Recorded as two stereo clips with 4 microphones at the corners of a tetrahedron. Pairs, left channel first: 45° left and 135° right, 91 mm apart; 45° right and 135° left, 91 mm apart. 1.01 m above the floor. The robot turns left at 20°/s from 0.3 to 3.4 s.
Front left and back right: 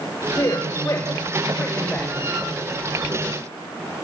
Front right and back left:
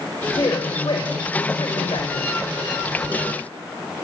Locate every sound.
0.4 s a man speaking: 5° right, 3.5 m; by 2.4 s 45° right, 3.5 m